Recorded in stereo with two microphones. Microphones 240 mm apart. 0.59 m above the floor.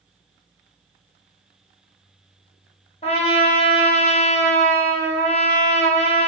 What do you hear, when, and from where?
3.0 s a trumpet: 25° left (ahead or behind), 0.9 m